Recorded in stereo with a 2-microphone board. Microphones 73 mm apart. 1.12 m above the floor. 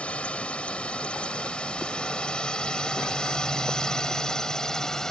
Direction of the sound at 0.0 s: 20° left (ahead or behind).